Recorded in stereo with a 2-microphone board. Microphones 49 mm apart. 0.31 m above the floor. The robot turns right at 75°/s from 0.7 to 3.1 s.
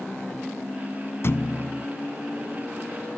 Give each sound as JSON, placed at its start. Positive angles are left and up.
{"t": 1.2, "sound": "a thud", "azimuth_deg": 120, "distance_m": 0.7}